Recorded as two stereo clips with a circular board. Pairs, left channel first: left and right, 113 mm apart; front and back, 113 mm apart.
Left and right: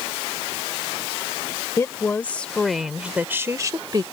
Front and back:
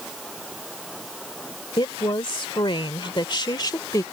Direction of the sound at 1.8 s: 35° left.